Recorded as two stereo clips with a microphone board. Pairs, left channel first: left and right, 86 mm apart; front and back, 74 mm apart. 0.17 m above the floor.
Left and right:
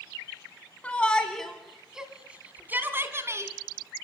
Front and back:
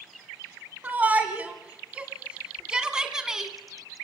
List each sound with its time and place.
0.8 s a shout: 145° left, 1.8 m; by 3.5 s 100° right, 2 m